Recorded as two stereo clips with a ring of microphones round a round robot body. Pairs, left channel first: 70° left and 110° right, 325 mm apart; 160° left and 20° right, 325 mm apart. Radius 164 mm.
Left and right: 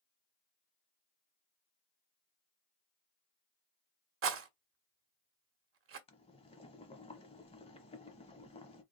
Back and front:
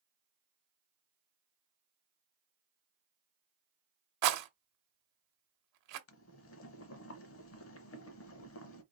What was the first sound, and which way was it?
A rattle, 60° right.